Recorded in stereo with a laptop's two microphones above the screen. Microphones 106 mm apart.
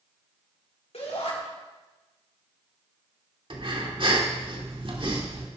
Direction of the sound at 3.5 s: 55° right (ahead or behind).